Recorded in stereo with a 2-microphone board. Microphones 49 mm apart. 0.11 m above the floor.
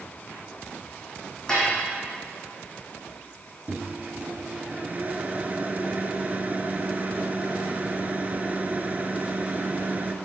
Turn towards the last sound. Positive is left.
turn(degrees=-30)  # may be behind; listen again after turning